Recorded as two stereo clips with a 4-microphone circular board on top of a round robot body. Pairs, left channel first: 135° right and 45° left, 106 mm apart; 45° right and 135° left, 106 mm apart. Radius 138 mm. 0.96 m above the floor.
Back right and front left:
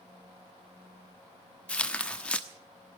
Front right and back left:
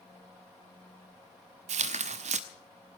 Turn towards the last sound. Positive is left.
turn(degrees=145)